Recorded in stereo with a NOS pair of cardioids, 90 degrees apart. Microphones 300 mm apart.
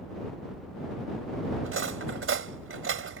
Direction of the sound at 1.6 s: 45° right.